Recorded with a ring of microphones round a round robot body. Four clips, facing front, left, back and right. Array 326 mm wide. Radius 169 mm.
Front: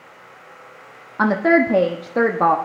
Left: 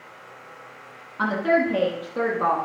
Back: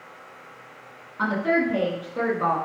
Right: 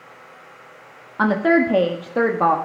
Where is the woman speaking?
35° right, 1.4 m.